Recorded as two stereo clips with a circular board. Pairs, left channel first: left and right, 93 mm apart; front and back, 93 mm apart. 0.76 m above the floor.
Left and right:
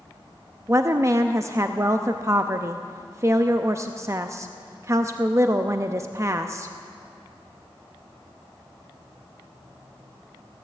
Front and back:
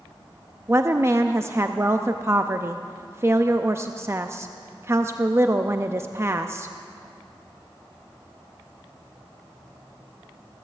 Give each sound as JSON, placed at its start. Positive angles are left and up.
{"t": 0.7, "sound": "a woman speaking", "azimuth_deg": -130, "distance_m": 0.5}